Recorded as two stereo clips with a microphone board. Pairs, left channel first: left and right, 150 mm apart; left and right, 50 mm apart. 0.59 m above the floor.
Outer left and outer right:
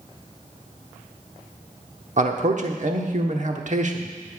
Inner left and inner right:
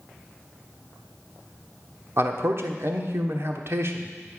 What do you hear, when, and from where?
2.2 s a man speaking: 55° right (ahead or behind), 1.1 m